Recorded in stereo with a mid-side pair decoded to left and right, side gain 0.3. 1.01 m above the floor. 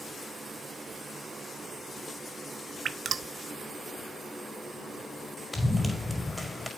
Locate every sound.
2.9 s dripping: 70° right, 0.7 m
5.5 s running footsteps: 15° left, 5.5 m